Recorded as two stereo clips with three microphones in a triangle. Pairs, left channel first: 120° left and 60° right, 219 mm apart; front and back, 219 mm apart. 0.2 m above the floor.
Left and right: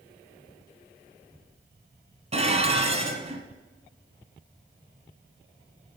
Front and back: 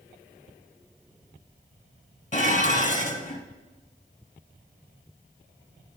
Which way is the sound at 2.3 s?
20° right.